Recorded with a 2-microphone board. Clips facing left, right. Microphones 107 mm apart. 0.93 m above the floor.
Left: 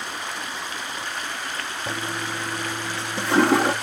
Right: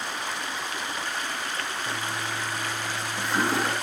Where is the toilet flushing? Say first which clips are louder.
Left 2 dB; 65° left (ahead or behind), 0.7 m.